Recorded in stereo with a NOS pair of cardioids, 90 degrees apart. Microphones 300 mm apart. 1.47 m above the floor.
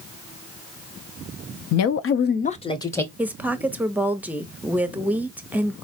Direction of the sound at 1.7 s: 65° left.